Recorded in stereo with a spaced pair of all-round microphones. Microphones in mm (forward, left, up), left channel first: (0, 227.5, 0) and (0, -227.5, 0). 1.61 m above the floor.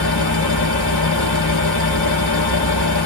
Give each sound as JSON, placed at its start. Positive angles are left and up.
{"t": 0.0, "sound": "a fan", "side_deg": 55, "distance_m": 1.6}